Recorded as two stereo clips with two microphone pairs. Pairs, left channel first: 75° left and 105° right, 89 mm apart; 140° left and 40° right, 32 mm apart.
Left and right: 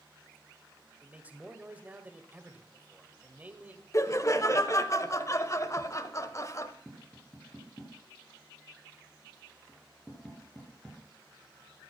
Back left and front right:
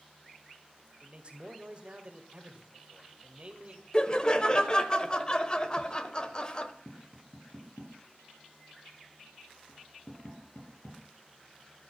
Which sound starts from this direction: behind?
Tapping, at 6.8 s.